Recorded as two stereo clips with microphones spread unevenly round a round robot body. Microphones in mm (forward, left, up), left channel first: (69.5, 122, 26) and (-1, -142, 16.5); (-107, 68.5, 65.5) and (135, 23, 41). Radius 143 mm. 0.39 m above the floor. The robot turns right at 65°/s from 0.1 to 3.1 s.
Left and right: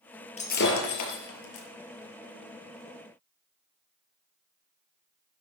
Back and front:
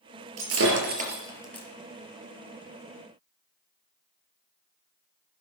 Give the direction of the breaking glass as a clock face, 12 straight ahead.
12 o'clock.